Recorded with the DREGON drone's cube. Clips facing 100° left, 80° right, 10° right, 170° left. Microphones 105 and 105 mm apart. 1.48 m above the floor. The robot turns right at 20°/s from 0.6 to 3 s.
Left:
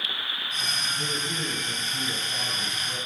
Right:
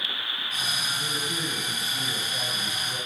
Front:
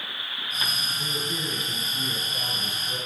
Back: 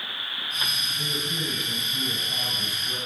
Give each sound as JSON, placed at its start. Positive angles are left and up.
{"t": 0.9, "sound": "a man speaking", "azimuth_deg": 140, "distance_m": 8.0}